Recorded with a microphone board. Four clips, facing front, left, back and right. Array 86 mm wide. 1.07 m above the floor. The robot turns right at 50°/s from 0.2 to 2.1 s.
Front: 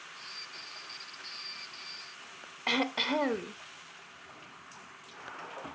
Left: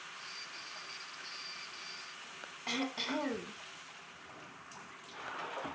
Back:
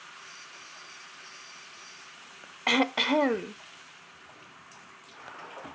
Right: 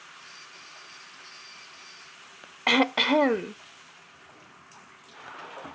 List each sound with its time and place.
2.7 s throat clearing: 110° right, 0.5 m